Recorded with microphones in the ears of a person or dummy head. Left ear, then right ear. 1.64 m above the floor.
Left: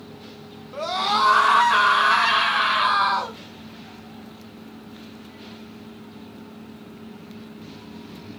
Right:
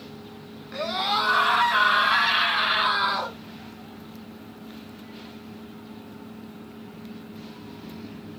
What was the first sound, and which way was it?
A scream, 80° left.